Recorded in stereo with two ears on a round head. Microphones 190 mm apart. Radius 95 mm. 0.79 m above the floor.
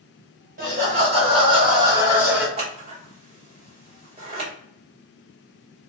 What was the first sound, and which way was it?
Laughter, 40° right (ahead or behind).